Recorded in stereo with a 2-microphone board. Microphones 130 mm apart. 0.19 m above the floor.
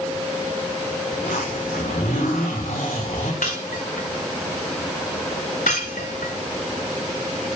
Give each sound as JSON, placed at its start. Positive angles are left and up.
{"t": 1.1, "sound": "a zipper", "side_deg": 80, "distance_m": 6.0}
{"t": 3.4, "sound": "breaking glass", "side_deg": 85, "distance_m": 4.5}